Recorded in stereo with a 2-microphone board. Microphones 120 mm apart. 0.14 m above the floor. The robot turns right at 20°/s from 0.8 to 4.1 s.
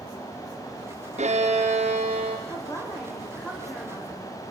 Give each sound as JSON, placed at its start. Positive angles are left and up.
{"t": 1.2, "sound": "a violin", "side_deg": -75, "distance_m": 4.5}
{"t": 2.5, "sound": "a woman speaking", "azimuth_deg": 150, "distance_m": 6.5}